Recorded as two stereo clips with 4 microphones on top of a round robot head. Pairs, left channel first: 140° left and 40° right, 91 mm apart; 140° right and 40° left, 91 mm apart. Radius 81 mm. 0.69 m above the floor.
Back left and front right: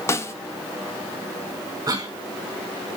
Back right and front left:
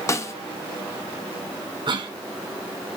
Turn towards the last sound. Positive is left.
turn(degrees=10)